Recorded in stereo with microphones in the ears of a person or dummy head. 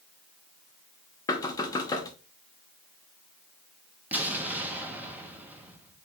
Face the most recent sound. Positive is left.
turn(degrees=-10)  # may be behind; listen again after turning